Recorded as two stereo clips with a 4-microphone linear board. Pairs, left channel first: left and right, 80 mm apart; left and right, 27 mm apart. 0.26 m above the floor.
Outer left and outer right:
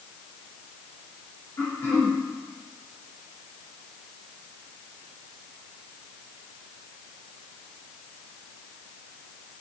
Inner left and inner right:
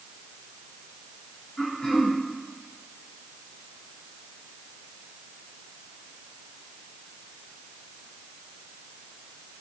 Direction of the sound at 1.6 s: 35° left (ahead or behind).